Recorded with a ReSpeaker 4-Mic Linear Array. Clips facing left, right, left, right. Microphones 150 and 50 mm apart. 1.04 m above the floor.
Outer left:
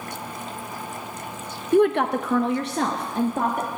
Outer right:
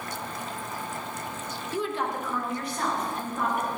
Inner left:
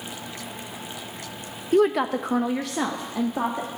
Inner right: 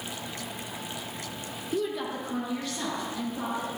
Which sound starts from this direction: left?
A woman speaking, at 1.7 s.